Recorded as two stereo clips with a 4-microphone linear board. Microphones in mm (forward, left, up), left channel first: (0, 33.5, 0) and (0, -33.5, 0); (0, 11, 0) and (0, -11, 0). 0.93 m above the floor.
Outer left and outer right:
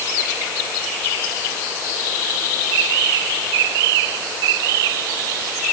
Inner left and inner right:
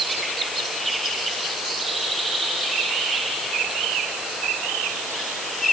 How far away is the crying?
I don't hear crying.